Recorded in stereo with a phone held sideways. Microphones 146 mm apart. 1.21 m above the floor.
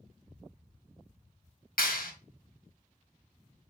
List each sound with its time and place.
1.8 s a clap: 80° left, 1.6 m